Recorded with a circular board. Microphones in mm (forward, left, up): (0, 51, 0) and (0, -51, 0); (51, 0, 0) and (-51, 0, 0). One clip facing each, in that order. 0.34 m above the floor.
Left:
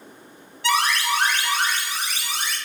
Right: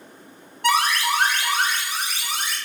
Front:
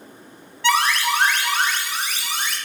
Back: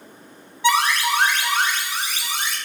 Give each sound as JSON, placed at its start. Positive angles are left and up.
{"t": 0.6, "sound": "an alarm", "azimuth_deg": -110, "distance_m": 1.3}